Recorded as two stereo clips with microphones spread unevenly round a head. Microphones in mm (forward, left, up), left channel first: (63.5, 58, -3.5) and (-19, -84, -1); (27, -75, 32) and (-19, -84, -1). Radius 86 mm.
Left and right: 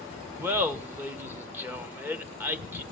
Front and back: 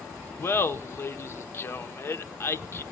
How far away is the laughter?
About 1.2 m.